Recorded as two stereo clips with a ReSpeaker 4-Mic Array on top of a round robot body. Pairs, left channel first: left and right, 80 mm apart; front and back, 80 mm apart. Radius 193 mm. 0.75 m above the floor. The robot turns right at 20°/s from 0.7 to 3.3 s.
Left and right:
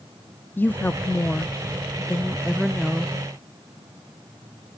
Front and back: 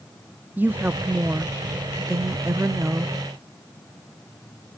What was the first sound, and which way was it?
A woman speaking, 135° left.